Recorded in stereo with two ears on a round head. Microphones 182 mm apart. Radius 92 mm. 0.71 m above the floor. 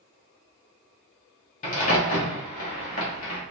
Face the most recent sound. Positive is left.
turn(degrees=40)  # may be behind; listen again after turning